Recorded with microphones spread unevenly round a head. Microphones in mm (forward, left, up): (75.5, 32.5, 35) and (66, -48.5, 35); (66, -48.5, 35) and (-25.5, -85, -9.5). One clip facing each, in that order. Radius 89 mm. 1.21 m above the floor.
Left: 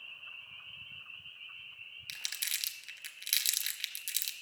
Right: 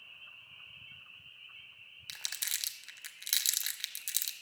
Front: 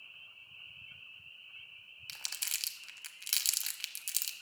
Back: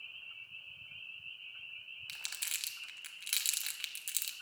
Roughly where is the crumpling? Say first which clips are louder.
Even, front 1 dB; ahead right.